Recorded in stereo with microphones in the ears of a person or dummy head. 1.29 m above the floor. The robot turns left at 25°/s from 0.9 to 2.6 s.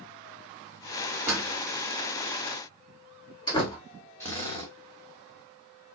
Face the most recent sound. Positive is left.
turn(degrees=10)  # may be behind; listen again after turning